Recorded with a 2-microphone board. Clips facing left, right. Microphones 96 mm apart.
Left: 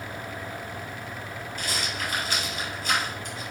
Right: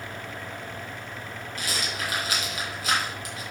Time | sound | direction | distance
1.6 | a rattle | 80° right | 4 m